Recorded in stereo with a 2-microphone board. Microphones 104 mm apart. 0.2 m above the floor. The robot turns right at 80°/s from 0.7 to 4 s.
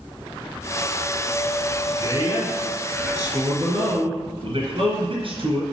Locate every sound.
2.0 s a man speaking: 110° left, 2.5 m; by 5.7 s 90° right, 2.5 m